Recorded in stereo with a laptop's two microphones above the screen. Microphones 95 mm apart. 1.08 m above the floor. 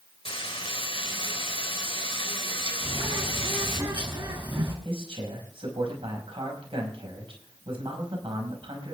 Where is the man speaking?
70° right (ahead or behind), 5.5 m.